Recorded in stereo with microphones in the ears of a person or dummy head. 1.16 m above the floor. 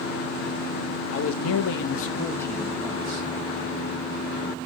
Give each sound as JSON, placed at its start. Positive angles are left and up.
{"t": 1.1, "sound": "a man speaking", "side_deg": 75, "distance_m": 0.8}